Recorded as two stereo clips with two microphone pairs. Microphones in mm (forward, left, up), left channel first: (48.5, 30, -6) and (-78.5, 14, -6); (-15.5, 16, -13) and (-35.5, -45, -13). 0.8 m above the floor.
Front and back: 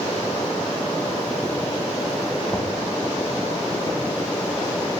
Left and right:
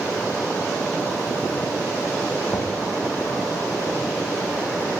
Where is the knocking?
70° left, 3 m.